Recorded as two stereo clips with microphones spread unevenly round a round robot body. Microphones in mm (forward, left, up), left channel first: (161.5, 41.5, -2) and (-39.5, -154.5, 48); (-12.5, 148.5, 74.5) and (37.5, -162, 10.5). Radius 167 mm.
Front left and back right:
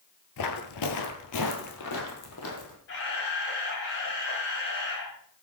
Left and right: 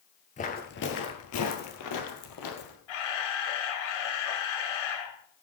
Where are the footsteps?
50° left, 1.3 m; by 2.8 s 100° left, 2 m.